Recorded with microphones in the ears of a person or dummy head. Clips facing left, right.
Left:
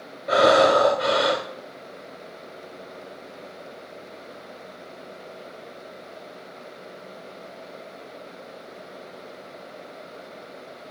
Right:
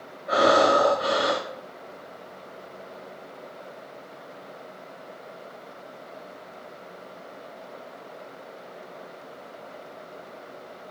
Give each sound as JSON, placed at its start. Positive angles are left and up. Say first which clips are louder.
{"t": 0.3, "sound": "breathing", "louder": "left 3 dB", "side_deg": 30, "distance_m": 1.7}